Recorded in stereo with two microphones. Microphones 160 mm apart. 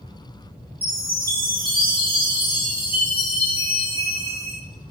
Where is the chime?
75° right (ahead or behind), 3.5 m.